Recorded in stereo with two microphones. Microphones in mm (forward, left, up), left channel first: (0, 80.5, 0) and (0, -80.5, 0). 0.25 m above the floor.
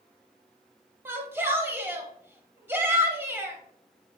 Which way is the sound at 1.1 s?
15° right (ahead or behind).